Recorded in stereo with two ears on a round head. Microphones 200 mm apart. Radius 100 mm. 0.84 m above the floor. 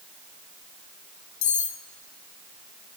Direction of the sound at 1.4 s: 90° left.